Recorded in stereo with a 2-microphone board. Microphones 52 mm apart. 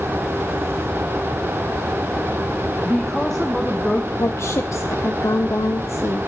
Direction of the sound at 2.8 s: 5° right (ahead or behind).